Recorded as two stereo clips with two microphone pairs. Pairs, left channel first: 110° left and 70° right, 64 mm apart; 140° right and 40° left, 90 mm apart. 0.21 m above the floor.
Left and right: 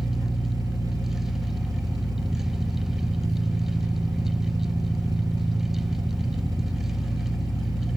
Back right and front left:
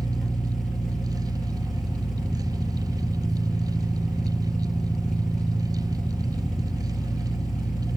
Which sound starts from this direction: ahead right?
An engine running, at 0.0 s.